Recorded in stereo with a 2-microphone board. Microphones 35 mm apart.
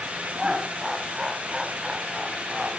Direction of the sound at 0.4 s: 15° right (ahead or behind).